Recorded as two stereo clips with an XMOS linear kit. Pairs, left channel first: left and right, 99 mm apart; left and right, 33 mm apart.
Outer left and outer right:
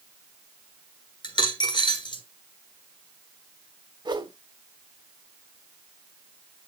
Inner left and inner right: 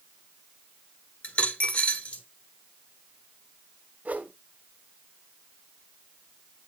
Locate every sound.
1.2 s a dropped coin: 50° left (ahead or behind), 1.2 m
4.0 s a whoosh: 45° right (ahead or behind), 1.2 m